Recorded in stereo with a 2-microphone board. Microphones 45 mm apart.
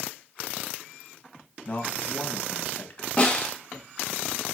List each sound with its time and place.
1.6 s a man speaking: 35° left (ahead or behind), 1.4 m
3.2 s a snare drum: 20° left (ahead or behind), 2.5 m